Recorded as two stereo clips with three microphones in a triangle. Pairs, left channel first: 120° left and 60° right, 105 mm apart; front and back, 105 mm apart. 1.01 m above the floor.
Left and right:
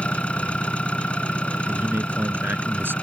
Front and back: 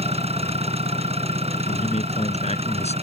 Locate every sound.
0.0 s an engine running: 160° right
1.7 s a man speaking: 10° left